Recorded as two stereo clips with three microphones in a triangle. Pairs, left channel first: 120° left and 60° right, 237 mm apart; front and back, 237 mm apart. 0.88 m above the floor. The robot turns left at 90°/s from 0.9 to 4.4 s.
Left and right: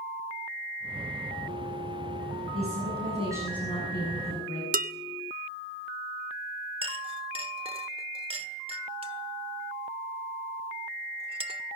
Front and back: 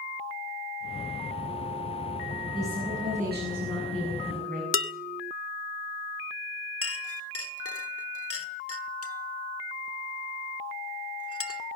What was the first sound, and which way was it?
A woman speaking, 65° right.